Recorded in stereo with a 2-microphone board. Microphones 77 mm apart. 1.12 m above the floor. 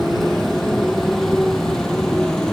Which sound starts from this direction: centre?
A motorcycle, at 0.0 s.